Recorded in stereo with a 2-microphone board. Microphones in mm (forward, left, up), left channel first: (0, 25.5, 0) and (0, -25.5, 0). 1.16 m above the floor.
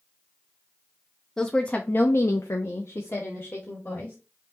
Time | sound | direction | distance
1.4 | a woman speaking | 10° left (ahead or behind) | 1.0 m